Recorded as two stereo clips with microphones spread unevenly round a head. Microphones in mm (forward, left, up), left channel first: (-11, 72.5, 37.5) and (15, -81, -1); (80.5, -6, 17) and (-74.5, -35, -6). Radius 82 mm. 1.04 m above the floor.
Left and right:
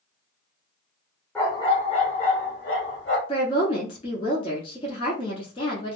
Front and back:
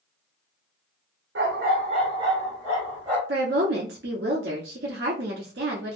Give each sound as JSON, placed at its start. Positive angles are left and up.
{"t": 1.4, "sound": "a dog barking", "azimuth_deg": 170, "distance_m": 1.0}
{"t": 3.3, "sound": "a woman speaking", "azimuth_deg": 160, "distance_m": 1.9}